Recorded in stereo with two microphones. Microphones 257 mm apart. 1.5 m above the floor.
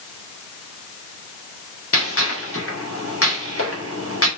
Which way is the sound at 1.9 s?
55° left (ahead or behind).